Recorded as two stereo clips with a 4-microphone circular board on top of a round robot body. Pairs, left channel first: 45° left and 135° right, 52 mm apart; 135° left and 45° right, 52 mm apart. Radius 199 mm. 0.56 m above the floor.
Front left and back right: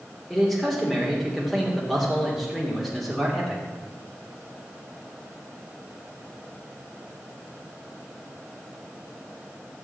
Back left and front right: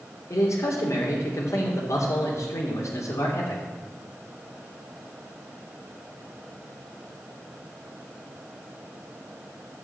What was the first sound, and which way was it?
A man speaking, 130° left.